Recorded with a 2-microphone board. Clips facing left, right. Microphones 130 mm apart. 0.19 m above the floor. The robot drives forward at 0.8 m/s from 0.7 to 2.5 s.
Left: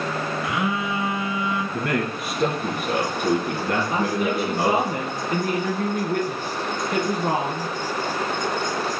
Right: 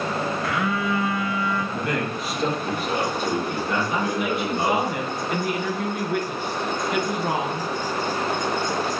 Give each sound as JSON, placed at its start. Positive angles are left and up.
{"t": 0.4, "sound": "a phone buzzing", "side_deg": 20, "distance_m": 0.9}
{"t": 1.7, "sound": "a man speaking", "side_deg": 60, "distance_m": 3.0}
{"t": 3.9, "sound": "a woman speaking", "side_deg": 40, "distance_m": 2.5}